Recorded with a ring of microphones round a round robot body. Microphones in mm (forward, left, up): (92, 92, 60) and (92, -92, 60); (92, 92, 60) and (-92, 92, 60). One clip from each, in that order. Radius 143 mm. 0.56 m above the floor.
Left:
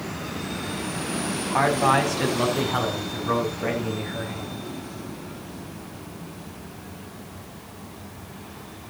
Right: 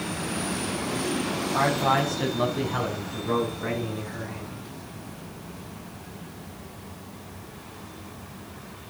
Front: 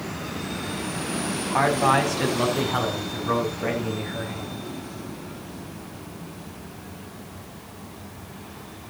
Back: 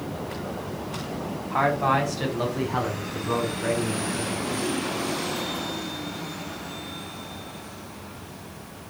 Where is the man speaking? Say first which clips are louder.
Left 3 dB, front 2 dB; 60° left, 4.5 m; by 4.7 s 20° left, 7 m.